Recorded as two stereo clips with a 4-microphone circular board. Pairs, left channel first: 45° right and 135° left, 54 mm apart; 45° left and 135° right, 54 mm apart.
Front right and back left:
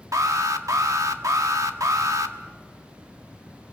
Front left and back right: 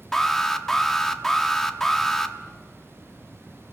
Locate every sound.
0.1 s an alarm: 125° left, 1.4 m